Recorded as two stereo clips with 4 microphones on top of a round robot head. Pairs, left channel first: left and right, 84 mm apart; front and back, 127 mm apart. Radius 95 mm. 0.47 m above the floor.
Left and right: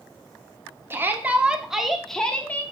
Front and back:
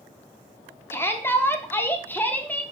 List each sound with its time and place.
0.9 s a shout: 55° right, 1.3 m; by 2.6 s 55° left, 1.2 m